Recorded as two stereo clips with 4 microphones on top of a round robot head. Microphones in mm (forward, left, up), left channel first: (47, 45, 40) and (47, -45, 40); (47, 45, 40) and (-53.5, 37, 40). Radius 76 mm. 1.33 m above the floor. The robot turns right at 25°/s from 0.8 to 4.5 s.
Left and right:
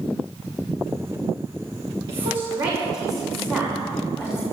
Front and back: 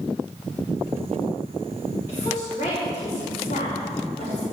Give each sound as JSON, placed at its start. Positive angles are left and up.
{"t": 2.1, "sound": "a woman speaking", "azimuth_deg": -65, "distance_m": 5.0}